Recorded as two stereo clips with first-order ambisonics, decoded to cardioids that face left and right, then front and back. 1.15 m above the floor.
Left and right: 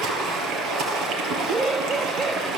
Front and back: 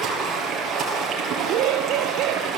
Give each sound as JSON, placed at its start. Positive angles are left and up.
{"t": 0.0, "sound": "running water", "azimuth_deg": -120, "distance_m": 5.5}
{"t": 1.4, "sound": "laughter", "azimuth_deg": -165, "distance_m": 0.6}